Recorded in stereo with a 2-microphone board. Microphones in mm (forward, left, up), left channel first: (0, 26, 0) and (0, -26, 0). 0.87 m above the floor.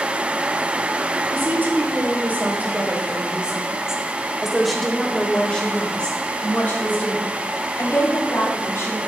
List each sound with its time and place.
1.3 s a woman speaking: 45° right (ahead or behind), 4.5 m; by 9.0 s 50° left (ahead or behind), 6 m